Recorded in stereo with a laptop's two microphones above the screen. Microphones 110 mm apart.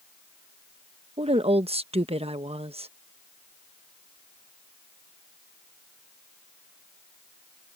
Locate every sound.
1.2 s a woman speaking: 55° right (ahead or behind)